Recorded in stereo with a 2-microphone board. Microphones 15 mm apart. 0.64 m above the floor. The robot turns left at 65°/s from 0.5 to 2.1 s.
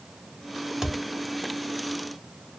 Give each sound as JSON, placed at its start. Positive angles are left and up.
{"t": 0.8, "sound": "a thud", "side_deg": -40, "distance_m": 1.3}